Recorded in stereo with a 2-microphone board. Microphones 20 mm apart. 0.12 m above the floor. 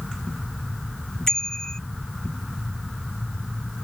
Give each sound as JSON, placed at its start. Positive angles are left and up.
{"t": 1.3, "sound": "a bicycle bell", "side_deg": 25}